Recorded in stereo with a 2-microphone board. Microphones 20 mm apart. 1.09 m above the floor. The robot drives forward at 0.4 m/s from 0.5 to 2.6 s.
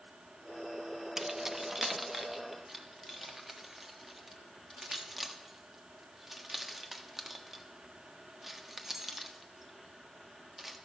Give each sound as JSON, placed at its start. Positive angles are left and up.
{"t": 1.2, "sound": "keys jangling", "side_deg": -20, "distance_m": 0.6}